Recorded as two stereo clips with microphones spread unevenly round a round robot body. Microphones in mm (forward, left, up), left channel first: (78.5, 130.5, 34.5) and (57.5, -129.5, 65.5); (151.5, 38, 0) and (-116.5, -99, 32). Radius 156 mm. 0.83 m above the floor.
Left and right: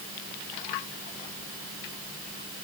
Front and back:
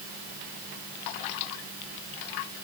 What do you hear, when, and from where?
Only background noise.